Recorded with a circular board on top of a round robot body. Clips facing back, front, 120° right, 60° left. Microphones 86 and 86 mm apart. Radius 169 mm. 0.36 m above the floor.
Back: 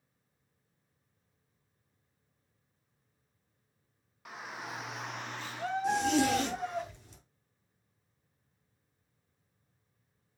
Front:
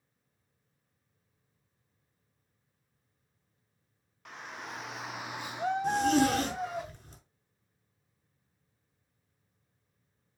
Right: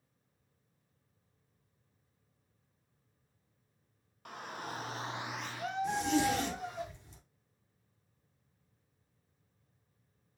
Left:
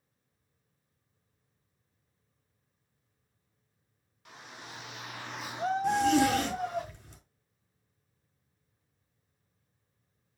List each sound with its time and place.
4.2 s a shout: 95° right, 2 m; by 6.8 s 75° left, 2.5 m
5.8 s a zipper: 35° left, 5 m